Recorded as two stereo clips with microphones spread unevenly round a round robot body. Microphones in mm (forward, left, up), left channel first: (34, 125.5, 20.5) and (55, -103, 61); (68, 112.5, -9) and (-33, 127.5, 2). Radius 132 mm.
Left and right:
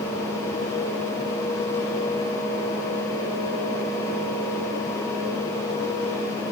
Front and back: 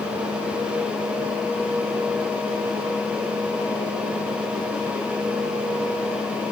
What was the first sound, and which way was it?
Only background noise.